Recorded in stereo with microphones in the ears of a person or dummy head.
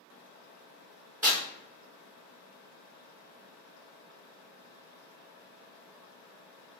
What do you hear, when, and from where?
1.2 s tearing paper: 15° right (ahead or behind), 1.2 m